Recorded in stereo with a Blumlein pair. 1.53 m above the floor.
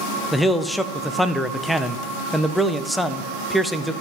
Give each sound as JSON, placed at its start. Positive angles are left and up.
{"t": 0.3, "sound": "a man speaking", "azimuth_deg": 0, "distance_m": 0.6}